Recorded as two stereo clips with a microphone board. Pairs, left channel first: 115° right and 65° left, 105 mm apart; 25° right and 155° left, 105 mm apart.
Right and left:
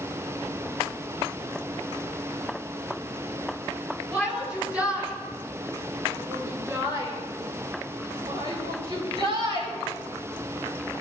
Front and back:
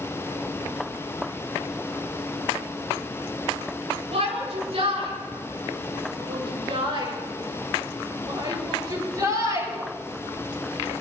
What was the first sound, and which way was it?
A shout, 150° left.